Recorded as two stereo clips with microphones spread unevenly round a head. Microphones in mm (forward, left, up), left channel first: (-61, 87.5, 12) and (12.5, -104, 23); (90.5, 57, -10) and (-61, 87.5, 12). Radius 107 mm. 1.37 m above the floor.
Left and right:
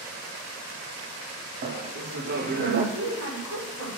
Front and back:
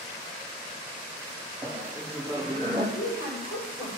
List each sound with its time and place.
1.6 s laughter: 115° right, 0.7 m
3.0 s a woman speaking: 55° right, 5 m